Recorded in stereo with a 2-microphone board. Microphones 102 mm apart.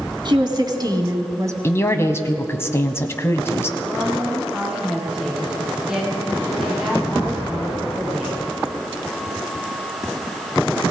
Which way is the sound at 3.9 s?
5° right (ahead or behind).